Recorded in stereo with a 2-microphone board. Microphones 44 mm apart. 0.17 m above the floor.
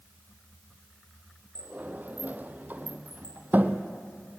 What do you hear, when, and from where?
1.6 s a sliding door: 40° right (ahead or behind), 1.3 m